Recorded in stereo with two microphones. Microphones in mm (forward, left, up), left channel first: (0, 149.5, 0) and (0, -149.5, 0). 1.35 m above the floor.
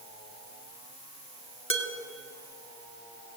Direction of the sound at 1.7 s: 40° left (ahead or behind).